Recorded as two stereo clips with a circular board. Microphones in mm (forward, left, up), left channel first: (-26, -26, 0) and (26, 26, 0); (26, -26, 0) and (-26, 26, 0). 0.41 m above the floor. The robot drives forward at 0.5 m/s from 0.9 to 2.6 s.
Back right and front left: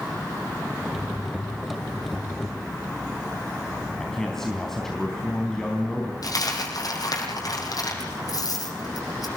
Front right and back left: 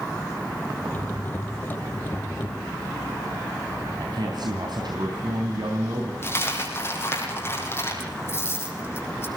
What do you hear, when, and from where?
4.0 s a man speaking: 140° left, 3.5 m
6.2 s a dropped coin: 100° right, 6 m